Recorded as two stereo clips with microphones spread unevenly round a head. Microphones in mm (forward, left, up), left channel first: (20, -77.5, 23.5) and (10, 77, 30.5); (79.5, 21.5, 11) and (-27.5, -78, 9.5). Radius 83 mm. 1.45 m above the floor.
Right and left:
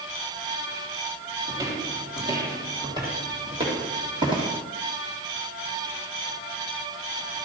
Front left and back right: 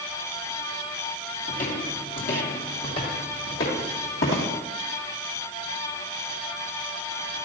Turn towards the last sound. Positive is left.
turn(degrees=35)